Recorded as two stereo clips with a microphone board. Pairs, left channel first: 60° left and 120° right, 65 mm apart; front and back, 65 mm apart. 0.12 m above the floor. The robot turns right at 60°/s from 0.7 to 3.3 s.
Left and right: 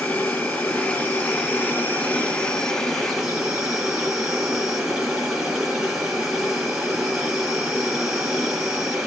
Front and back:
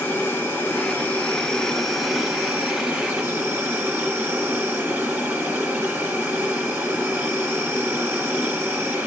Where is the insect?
5° left, 1.7 m; by 9.1 s 160° left, 1.7 m.